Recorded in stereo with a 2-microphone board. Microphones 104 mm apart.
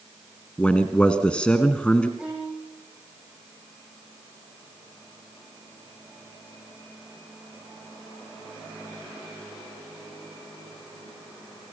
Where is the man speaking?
10° left (ahead or behind), 1.5 m.